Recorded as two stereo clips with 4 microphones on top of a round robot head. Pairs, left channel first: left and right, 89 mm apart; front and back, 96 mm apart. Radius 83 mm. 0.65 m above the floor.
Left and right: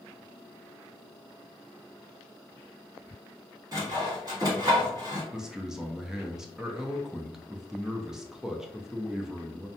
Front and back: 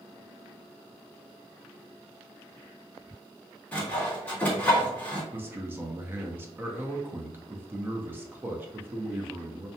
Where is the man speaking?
165° right, 0.5 m.